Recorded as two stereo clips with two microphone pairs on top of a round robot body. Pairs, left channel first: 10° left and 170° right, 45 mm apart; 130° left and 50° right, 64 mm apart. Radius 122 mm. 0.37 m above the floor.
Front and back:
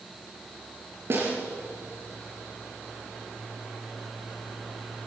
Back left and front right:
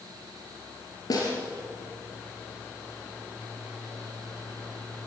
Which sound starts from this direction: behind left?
A snare drum, at 1.1 s.